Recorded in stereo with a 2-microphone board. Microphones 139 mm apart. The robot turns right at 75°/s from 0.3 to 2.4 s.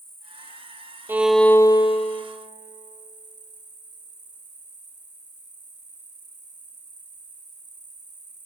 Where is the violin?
20° right, 0.5 m; by 2.2 s 70° left, 0.5 m.